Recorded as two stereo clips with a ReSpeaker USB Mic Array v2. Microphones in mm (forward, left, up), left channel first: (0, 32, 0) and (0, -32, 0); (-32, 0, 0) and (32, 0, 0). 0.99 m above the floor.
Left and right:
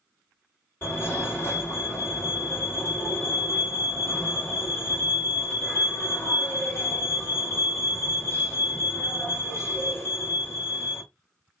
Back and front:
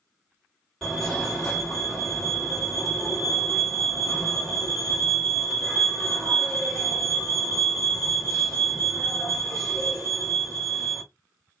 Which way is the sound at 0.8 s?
100° left.